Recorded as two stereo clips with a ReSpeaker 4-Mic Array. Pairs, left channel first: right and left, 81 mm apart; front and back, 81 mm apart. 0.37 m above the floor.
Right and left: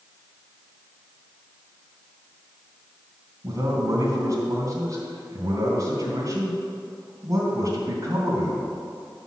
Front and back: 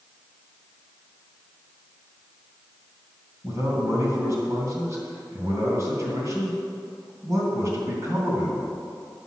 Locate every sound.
3.4 s a man speaking: 135° left, 3 m